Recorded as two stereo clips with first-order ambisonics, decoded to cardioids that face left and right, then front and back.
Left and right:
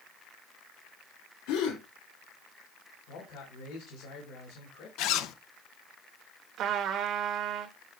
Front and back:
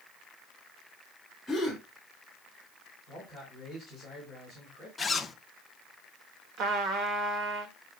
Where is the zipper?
80° left, 0.7 m.